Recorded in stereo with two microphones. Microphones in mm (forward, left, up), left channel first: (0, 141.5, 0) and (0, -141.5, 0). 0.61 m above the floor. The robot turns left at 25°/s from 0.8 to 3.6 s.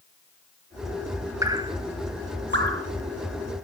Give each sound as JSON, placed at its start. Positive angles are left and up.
{"t": 1.4, "sound": "dripping", "side_deg": -10, "distance_m": 1.5}